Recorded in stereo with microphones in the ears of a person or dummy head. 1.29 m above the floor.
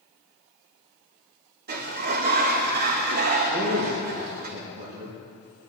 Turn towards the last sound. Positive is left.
turn(degrees=-60)  # may be behind; listen again after turning